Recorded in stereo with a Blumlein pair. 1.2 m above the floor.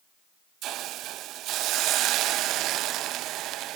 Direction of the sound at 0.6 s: 35° right.